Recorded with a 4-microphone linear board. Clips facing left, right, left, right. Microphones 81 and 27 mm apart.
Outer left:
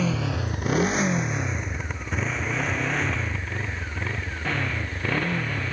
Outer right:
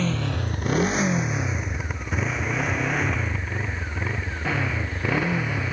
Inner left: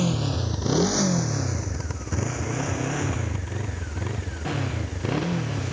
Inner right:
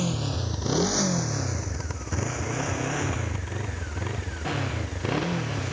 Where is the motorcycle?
5° left (ahead or behind); by 5.7 s 10° right (ahead or behind).